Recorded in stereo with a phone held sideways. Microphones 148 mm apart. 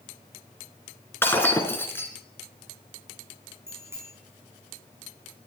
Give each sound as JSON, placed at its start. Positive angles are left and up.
{"t": 1.2, "sound": "breaking glass", "side_deg": 15, "distance_m": 2.5}
{"t": 3.7, "sound": "a bicycle bell", "side_deg": -20, "distance_m": 5.5}